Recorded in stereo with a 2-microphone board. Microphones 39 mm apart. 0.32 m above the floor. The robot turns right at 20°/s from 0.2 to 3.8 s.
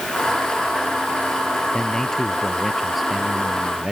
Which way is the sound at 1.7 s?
160° left.